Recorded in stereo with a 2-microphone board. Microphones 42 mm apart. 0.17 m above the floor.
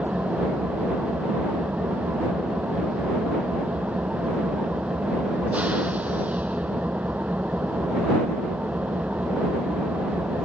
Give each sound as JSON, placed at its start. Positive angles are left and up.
{"t": 0.0, "sound": "an engine running", "side_deg": -40}